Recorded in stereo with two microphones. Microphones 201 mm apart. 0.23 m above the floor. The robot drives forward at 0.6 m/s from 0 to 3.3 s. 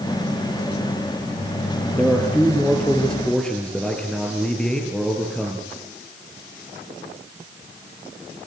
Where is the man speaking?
5° left (ahead or behind), 4.5 m.